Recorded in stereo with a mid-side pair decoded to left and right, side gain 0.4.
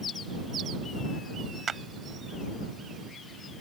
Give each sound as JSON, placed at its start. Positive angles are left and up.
{"t": 1.7, "sound": "a clap", "azimuth_deg": -45}